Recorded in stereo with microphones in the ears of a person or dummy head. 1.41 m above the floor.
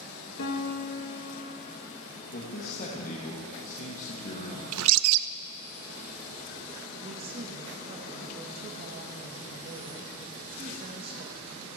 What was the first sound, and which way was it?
A piano, 75° left (ahead or behind).